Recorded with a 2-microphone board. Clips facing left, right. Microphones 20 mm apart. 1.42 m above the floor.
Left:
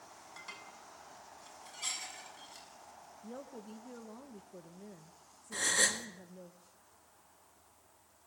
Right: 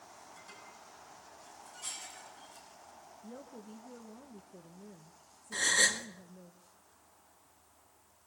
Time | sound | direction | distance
0.4 | dishes clattering | 40° left (ahead or behind) | 8 m
3.2 | a woman speaking | 20° left (ahead or behind) | 1.3 m
5.5 | a gasp | 15° right (ahead or behind) | 1.8 m